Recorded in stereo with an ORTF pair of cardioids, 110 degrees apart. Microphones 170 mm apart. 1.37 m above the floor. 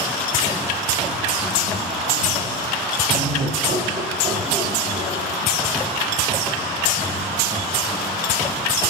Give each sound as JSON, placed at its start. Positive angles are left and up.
{"t": 3.1, "sound": "laughter", "azimuth_deg": -50, "distance_m": 0.6}